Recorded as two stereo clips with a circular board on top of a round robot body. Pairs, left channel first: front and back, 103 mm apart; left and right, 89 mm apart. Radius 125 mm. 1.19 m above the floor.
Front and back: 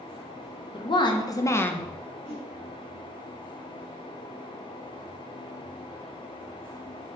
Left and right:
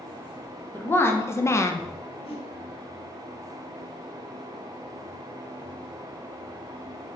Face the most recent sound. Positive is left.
turn(degrees=80)